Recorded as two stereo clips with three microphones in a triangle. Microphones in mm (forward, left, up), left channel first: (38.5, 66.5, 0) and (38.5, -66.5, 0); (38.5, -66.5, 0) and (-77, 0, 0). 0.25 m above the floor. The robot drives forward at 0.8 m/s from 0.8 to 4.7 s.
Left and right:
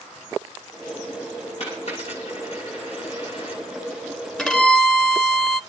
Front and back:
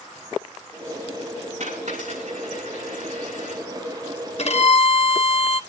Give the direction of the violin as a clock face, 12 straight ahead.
12 o'clock.